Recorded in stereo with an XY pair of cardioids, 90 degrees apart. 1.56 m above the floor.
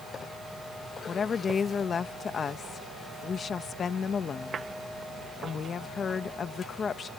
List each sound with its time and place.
1.1 s a woman speaking: 55° left